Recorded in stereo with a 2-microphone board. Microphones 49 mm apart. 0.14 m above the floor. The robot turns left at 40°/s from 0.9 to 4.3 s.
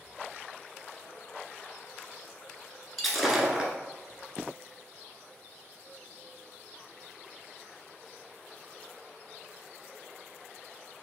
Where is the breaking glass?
5° left (ahead or behind), 0.8 m; by 3.7 s 20° right (ahead or behind), 0.8 m.